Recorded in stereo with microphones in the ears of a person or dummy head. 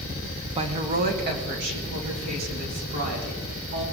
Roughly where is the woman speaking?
Right.